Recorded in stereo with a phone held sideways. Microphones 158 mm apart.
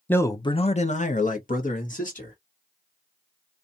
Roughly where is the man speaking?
Centre.